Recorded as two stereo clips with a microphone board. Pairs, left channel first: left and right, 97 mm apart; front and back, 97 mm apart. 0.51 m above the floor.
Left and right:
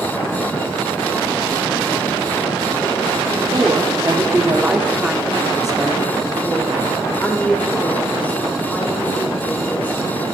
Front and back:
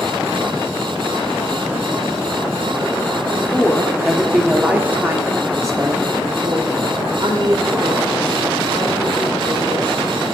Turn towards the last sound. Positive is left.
turn(degrees=160)